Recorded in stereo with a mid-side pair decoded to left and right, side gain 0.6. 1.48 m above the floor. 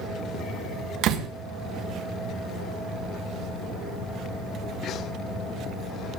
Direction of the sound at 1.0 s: 65° right.